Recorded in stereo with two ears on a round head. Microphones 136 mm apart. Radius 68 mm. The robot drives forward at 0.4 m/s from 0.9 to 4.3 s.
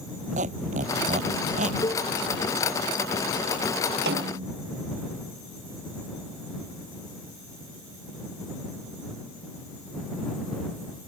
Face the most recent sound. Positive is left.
turn(degrees=-80)